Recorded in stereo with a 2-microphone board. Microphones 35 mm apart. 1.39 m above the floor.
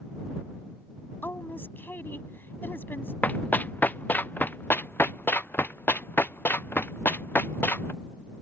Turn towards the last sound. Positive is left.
turn(degrees=75)  # may be behind; listen again after turning